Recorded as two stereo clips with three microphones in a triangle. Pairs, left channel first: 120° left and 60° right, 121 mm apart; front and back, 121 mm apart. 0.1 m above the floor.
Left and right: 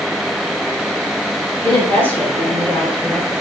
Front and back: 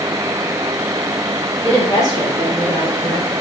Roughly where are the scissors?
I don't hear scissors.